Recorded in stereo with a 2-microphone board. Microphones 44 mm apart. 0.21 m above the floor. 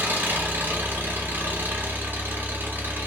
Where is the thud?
I don't hear a thud.